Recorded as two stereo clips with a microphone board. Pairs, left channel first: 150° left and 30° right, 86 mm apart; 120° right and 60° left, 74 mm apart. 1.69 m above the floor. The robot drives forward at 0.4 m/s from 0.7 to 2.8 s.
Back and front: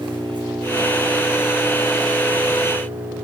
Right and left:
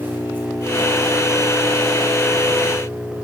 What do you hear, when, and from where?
0.0 s an engine running: 5° right, 8.5 m